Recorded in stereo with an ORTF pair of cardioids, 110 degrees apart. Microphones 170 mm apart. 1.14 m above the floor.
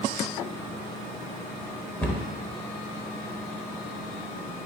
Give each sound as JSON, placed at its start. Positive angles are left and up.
{"t": 2.0, "sound": "a cupboard door", "azimuth_deg": 10, "distance_m": 0.7}